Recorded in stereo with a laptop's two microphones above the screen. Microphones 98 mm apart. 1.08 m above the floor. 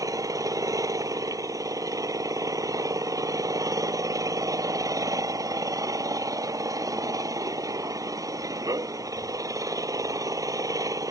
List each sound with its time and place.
0.0 s an engine running: 30° right (ahead or behind)